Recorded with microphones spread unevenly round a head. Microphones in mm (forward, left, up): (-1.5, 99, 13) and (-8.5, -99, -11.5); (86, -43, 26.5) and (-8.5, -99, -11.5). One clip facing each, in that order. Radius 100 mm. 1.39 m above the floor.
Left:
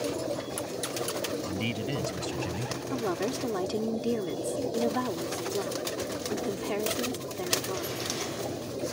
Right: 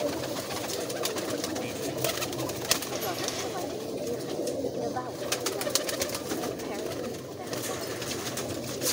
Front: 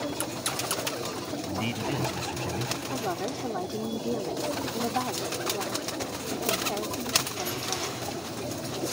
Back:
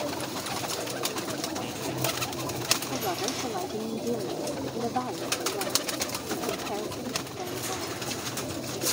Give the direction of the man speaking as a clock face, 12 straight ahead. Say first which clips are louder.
Left 1 dB, front 2 dB; 9 o'clock.